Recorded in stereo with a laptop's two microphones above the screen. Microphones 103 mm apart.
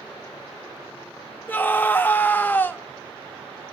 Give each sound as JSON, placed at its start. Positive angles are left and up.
{"t": 1.5, "sound": "a scream", "side_deg": 15, "distance_m": 0.6}